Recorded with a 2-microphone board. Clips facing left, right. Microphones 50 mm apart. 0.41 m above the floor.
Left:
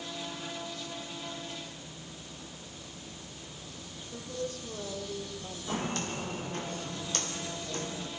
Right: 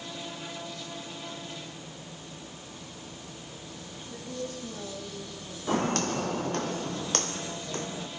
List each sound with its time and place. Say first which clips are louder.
4.0 s a woman speaking: even; 45° right (ahead or behind), 9 m; by 6.0 s 50° right (ahead or behind), 8 m
5.7 s footsteps: right 7 dB; 60° right (ahead or behind), 1.3 m; by 8.1 s 30° right (ahead or behind), 1.5 m